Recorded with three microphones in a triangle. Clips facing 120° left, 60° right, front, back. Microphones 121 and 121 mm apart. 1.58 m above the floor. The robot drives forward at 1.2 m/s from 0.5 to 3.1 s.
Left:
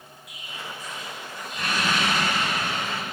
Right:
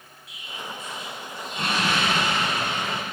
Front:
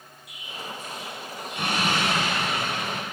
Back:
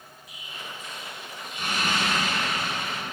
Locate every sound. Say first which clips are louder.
0.3 s an explosion: right 2 dB, front 4 dB; straight ahead, 5 m; by 3.0 s 5° left, 2 m